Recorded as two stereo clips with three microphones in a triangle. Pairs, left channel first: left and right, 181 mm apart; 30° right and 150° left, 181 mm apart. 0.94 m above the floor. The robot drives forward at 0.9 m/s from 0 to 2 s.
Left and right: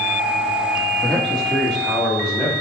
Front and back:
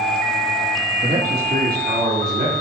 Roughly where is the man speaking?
Behind.